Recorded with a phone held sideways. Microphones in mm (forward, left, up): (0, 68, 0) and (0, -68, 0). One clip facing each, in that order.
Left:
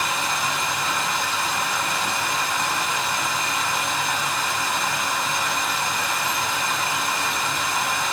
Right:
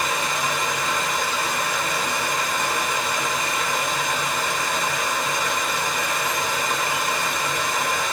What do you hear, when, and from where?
0.0 s running water: 65° right (ahead or behind), 2.0 m